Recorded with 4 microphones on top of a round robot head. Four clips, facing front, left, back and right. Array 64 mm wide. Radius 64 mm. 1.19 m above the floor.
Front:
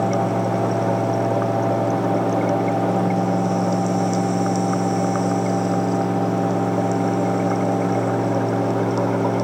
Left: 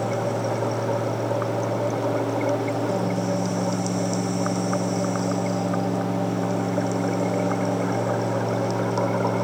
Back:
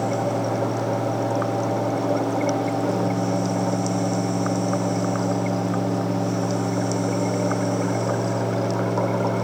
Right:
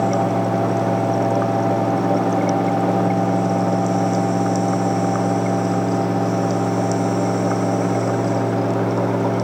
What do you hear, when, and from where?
Only background noise.